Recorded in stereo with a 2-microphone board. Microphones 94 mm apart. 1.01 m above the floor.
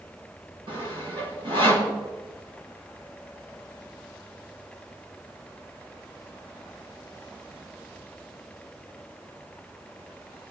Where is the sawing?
65° right (ahead or behind), 1.5 m.